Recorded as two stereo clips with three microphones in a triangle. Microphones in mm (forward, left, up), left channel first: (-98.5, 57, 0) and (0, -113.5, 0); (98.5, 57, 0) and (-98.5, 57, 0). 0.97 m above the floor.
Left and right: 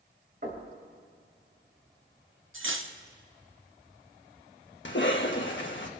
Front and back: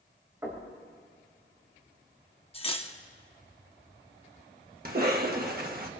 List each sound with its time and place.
0.4 s knocking: 105° right, 3.5 m
2.5 s cutlery clinking: 60° right, 0.8 m
4.8 s a cough: 140° left, 1.1 m